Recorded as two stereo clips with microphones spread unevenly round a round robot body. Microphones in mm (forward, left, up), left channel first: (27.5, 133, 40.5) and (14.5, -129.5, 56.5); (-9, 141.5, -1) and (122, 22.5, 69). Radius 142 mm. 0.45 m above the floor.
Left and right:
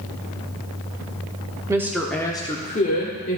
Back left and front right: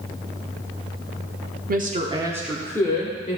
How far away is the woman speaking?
About 1.4 m.